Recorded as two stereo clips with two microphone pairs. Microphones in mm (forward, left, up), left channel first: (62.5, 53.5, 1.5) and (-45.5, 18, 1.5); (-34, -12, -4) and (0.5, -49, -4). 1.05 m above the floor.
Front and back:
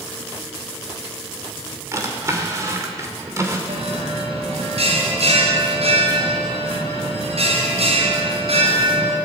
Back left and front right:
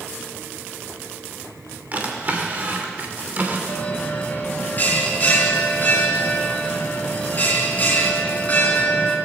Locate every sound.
1.9 s a drawer: 100° right, 2 m
3.7 s a bell: 175° right, 3 m